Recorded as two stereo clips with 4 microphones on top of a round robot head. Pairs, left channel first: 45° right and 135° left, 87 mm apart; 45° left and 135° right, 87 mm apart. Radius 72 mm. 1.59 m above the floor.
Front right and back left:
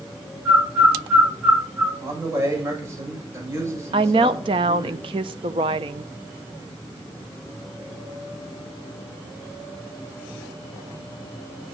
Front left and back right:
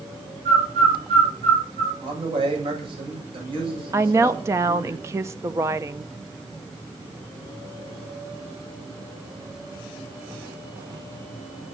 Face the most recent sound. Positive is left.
turn(degrees=165)